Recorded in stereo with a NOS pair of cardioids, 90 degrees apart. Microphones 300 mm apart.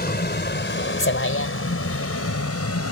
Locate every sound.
0.0 s a vehicle: 30° left; by 2.9 s 50° left